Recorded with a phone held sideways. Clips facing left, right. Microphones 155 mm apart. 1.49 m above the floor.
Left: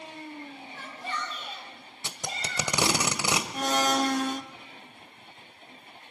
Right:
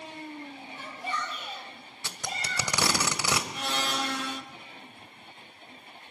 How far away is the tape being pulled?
About 1.4 m.